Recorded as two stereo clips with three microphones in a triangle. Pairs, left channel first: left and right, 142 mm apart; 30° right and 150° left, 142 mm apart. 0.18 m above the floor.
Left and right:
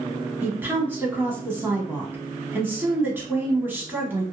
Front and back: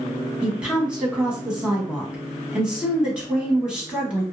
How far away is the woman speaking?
About 1.0 m.